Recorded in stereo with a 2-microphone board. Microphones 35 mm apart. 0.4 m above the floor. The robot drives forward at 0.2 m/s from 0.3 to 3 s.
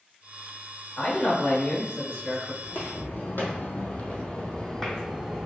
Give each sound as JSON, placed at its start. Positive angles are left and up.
{"t": 1.0, "sound": "a man speaking", "side_deg": 40, "distance_m": 1.0}
{"t": 2.6, "sound": "footsteps", "side_deg": 75, "distance_m": 1.1}